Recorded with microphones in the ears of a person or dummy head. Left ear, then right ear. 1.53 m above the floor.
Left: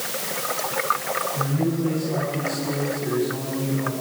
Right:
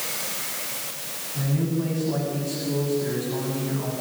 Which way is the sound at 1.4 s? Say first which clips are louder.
Left 4 dB; 20° right (ahead or behind).